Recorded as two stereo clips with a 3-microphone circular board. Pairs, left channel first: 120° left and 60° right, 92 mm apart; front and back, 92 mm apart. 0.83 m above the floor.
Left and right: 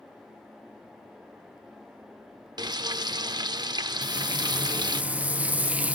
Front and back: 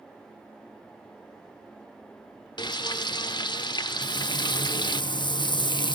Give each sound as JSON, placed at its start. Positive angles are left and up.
{"t": 2.6, "sound": "frying", "azimuth_deg": -30, "distance_m": 0.6}
{"t": 4.0, "sound": "frying", "azimuth_deg": 10, "distance_m": 0.8}